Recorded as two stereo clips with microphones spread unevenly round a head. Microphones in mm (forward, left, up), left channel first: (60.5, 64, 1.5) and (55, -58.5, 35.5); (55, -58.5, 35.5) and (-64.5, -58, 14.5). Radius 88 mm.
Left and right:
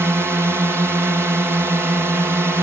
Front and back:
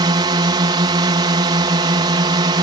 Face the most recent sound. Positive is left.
turn(degrees=-175)